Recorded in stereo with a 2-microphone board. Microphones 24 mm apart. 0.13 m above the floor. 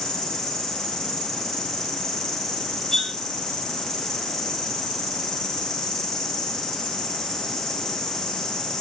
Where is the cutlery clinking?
15° left (ahead or behind), 0.7 m.